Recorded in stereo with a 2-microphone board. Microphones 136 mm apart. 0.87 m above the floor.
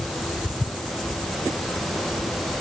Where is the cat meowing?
No cat meowing in this recording.